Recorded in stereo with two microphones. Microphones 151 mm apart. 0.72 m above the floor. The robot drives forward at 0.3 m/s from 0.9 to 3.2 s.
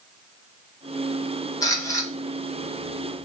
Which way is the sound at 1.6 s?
25° left (ahead or behind).